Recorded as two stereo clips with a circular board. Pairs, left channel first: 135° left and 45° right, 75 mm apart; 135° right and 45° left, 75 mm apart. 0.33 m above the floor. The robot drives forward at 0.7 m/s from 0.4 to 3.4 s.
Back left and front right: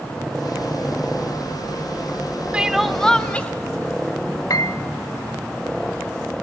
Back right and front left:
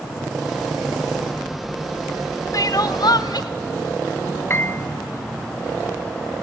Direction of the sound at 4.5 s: 170° left.